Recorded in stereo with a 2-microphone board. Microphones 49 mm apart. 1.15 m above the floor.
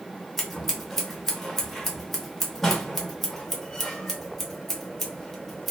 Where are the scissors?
5° left (ahead or behind), 1.0 m.